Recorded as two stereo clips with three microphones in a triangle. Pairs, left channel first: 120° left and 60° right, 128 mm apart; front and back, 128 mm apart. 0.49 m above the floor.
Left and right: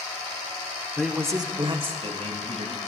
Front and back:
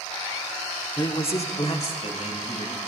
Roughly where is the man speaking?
Ahead left.